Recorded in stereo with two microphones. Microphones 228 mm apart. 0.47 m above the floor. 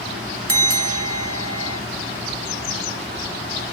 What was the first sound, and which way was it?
A bell, 75° right (ahead or behind).